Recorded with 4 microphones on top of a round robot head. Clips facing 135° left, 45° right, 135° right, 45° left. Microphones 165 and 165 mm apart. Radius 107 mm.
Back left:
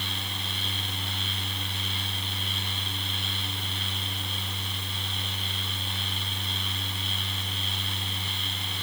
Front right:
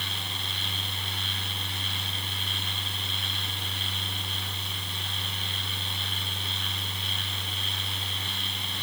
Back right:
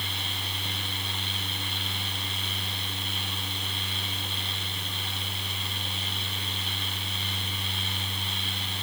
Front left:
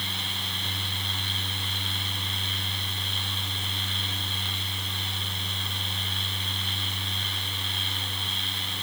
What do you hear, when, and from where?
Only background noise.